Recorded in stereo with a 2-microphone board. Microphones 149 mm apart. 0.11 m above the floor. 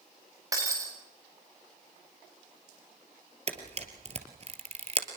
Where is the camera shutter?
45° right (ahead or behind), 2.5 m.